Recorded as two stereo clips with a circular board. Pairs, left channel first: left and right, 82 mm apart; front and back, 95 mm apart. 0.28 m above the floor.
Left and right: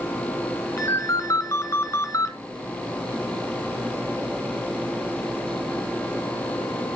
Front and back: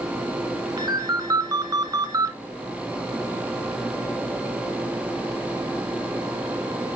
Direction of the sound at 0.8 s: 140° left.